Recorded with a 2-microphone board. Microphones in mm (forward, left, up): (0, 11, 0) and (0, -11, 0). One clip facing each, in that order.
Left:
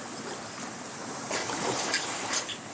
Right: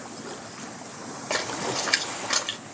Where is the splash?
50° right (ahead or behind), 2 m.